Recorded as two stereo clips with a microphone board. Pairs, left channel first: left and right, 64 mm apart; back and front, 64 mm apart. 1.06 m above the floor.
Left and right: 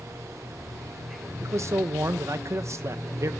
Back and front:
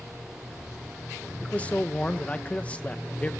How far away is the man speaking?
About 1.0 m.